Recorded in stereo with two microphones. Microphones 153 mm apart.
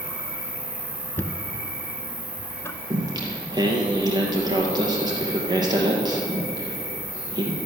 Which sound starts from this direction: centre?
Knocking, at 1.2 s.